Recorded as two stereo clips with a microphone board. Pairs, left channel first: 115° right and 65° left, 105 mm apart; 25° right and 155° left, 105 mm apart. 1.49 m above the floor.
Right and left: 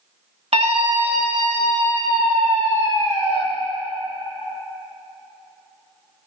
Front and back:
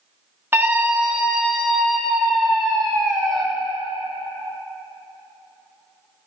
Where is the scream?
85° left, 1.8 m; by 3.4 s 60° left, 4 m.